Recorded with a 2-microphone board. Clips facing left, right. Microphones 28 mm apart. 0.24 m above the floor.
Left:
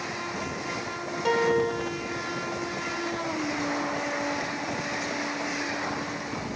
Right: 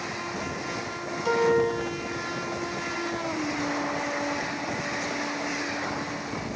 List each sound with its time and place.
1.2 s a piano: 70° left (ahead or behind), 8 m